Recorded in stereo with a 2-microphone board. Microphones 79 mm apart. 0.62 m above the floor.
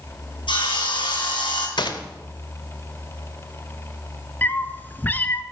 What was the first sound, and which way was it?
Sawing, 85° left.